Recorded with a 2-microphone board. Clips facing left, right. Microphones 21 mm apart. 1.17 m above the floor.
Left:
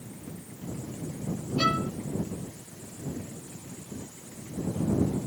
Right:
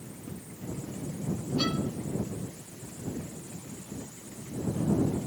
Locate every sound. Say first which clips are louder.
1.6 s a violin: left 5 dB; 55° left (ahead or behind)